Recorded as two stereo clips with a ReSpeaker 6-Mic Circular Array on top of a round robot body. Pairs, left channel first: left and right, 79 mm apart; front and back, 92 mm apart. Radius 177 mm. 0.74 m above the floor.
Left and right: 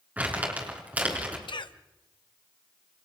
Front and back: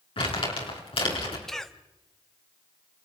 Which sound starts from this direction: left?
A cough, at 1.5 s.